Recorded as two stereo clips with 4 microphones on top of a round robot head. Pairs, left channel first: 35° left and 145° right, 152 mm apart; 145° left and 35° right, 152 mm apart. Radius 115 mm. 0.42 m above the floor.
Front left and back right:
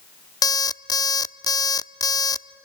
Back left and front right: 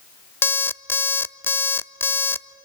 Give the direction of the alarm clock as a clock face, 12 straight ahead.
9 o'clock.